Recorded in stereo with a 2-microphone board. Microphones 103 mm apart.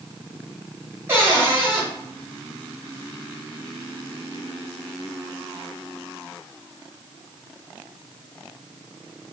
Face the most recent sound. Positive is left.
turn(degrees=-25)  # may be behind; listen again after turning